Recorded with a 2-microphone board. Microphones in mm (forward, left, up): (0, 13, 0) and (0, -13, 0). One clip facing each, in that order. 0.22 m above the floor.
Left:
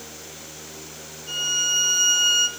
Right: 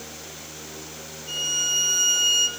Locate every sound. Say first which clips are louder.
1.3 s a violin: left 2 dB; 20° left (ahead or behind), 0.5 m